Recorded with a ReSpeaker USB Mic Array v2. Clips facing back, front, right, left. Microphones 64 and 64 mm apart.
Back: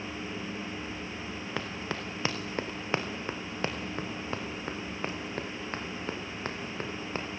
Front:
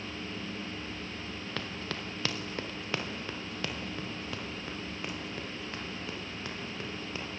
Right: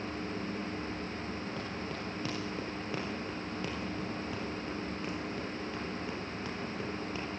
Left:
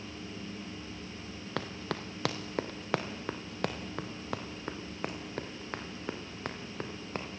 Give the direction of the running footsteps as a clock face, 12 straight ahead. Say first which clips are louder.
Back 3 dB, left 1 dB; 8 o'clock.